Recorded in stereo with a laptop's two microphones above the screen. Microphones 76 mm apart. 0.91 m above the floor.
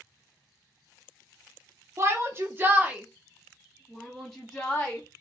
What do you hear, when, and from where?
2.0 s a shout: 40° right (ahead or behind), 0.9 m; by 5.0 s 10° left (ahead or behind), 1.5 m